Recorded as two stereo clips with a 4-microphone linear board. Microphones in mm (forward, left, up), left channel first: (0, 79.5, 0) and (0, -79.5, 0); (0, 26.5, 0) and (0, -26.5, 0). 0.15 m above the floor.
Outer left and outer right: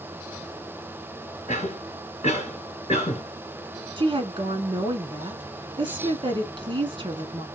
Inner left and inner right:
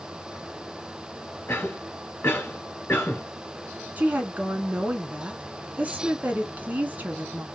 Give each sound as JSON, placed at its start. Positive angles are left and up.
{"t": 1.5, "sound": "a cough", "side_deg": 45, "distance_m": 1.8}
{"t": 4.0, "sound": "a woman speaking", "side_deg": -30, "distance_m": 1.1}